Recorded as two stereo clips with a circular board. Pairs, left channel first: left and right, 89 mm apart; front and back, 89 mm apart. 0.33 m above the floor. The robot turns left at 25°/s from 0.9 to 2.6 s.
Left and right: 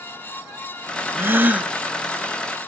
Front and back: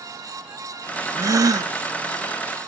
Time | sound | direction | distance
1.1 | a gasp | 145° right | 0.7 m